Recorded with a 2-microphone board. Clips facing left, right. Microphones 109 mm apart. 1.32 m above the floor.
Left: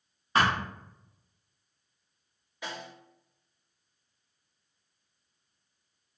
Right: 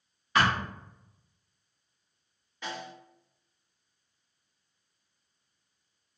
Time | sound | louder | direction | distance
0.3 | a thud | even | 30° left (ahead or behind) | 0.8 m
2.6 | a snare drum | right 1 dB | 10° left (ahead or behind) | 1.5 m